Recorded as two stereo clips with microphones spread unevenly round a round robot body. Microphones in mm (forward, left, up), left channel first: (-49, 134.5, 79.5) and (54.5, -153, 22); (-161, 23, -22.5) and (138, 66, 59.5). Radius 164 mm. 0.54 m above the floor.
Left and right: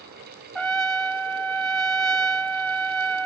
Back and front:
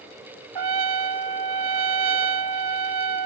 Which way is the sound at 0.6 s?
20° left.